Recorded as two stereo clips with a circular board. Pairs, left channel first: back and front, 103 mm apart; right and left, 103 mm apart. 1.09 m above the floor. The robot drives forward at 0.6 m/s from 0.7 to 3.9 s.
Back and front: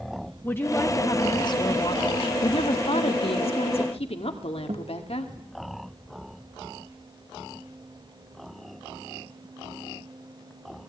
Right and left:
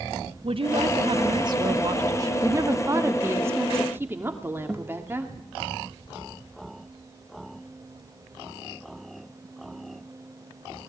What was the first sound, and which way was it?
A woman speaking, 115° left.